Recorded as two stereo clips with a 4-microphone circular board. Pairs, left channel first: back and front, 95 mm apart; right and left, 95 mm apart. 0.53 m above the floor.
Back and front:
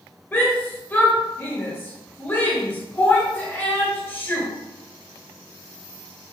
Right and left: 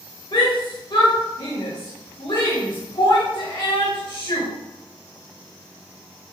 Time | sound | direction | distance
0.3 | a shout | 115° right | 1.8 m